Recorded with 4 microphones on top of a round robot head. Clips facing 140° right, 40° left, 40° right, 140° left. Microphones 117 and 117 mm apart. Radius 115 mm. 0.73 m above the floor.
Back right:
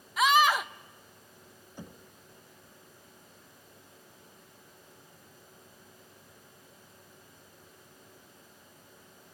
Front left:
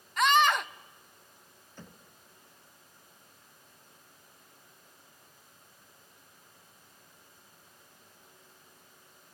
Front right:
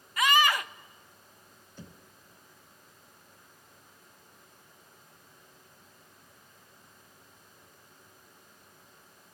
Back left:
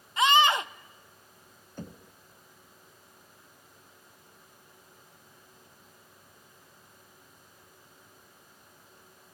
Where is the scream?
140° left, 0.7 m.